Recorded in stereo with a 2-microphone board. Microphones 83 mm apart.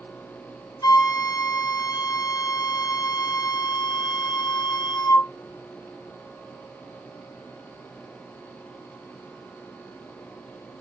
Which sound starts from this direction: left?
A flute, at 0.8 s.